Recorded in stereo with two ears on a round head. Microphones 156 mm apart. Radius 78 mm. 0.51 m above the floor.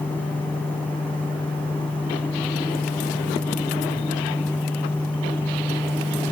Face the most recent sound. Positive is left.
No sound to turn to.